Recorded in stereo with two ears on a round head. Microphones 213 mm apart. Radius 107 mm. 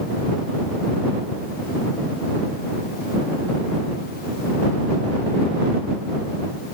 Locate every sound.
Only background noise.